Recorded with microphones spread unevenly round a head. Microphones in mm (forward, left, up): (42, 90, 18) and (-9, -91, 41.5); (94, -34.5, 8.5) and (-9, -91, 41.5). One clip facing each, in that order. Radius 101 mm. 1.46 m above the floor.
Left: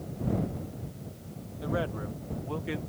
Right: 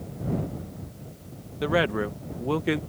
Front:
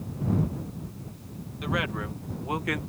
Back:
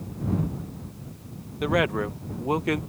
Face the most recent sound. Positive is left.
turn(degrees=-90)